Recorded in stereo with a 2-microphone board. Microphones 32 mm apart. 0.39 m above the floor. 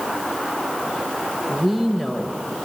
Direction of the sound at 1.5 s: 10° right (ahead or behind).